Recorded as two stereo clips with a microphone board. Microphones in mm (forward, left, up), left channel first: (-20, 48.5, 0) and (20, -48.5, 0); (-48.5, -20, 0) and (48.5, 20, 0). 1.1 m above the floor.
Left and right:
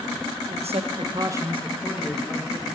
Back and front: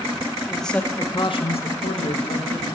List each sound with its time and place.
0.5 s a man speaking: 65° right, 1.1 m; by 2.7 s 175° right, 2.0 m